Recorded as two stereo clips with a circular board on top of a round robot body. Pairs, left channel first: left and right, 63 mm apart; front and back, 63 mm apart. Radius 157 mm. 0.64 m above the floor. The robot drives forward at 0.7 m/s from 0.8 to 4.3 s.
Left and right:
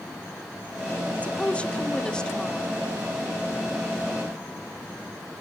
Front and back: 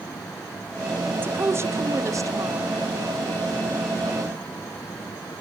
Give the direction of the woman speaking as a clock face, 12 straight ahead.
7 o'clock.